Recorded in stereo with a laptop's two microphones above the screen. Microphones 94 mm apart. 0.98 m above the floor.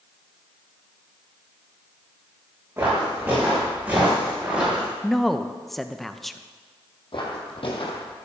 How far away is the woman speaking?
About 0.6 m.